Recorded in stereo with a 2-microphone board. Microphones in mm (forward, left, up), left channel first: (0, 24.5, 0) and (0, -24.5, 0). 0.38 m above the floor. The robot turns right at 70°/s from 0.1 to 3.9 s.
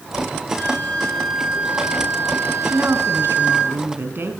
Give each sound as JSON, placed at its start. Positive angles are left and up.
{"t": 0.6, "sound": "a flute", "azimuth_deg": 135, "distance_m": 9.5}
{"t": 2.6, "sound": "a woman speaking", "azimuth_deg": -140, "distance_m": 4.0}